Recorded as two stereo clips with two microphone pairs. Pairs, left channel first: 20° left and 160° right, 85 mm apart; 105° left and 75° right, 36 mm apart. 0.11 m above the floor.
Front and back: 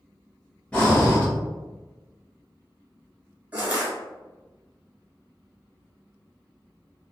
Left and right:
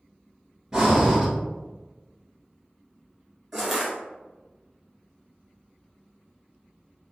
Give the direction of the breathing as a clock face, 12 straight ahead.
1 o'clock.